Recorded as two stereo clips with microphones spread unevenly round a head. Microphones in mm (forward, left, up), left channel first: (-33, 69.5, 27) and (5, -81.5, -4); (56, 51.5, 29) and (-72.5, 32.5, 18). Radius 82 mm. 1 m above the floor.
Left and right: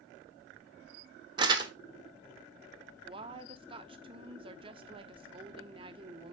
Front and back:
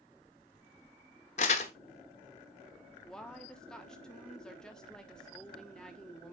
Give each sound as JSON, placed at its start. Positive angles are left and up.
{"t": 1.4, "sound": "crumpling", "azimuth_deg": -10, "distance_m": 0.8}
{"t": 3.0, "sound": "a woman speaking", "azimuth_deg": -80, "distance_m": 0.9}